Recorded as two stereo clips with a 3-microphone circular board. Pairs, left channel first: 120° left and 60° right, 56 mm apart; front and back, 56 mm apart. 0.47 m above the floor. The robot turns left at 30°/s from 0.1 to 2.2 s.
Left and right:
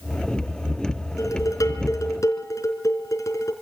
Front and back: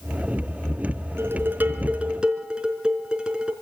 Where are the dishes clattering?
135° left, 3.5 m; by 3.5 s 105° left, 3.5 m.